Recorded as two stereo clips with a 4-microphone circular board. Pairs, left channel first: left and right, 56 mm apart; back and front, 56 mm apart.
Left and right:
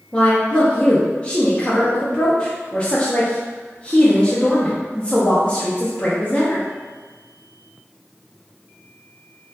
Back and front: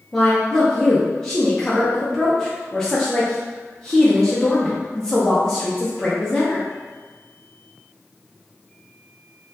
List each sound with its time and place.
0.1 s a woman speaking: 115° left, 0.6 m